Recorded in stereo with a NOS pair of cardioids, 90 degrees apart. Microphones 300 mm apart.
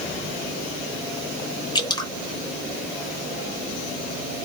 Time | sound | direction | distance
1.8 | dripping | 15° left | 0.9 m